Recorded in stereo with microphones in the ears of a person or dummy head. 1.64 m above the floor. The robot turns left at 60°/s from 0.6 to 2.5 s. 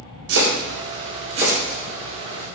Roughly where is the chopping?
Right.